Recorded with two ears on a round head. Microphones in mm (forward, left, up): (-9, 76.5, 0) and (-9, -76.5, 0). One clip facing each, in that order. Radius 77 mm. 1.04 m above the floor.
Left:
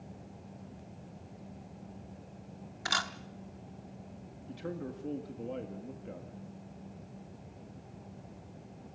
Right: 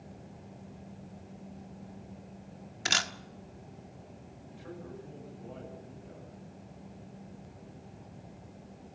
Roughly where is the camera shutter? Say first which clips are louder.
Right 1 dB; right.